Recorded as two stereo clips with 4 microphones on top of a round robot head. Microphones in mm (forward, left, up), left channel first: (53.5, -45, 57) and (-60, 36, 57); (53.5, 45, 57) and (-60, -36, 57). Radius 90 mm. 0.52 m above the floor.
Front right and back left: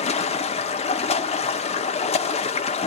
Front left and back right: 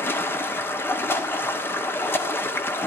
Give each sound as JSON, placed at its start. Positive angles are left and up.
{"t": 0.0, "sound": "running water", "azimuth_deg": -35, "distance_m": 1.4}